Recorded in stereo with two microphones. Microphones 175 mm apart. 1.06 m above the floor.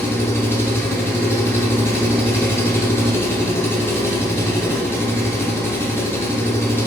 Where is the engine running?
15° left (ahead or behind), 0.7 m.